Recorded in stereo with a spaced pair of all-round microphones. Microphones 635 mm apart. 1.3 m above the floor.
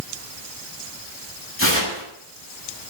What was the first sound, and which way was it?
Tearing paper, 20° left (ahead or behind).